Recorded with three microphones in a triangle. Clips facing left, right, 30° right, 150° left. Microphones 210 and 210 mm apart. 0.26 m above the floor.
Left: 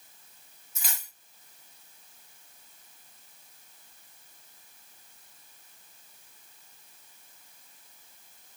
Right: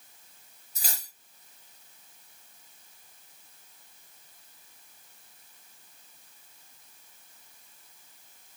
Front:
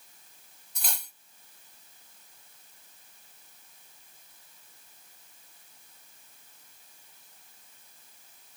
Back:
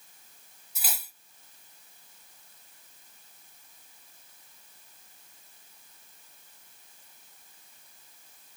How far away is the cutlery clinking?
About 0.9 m.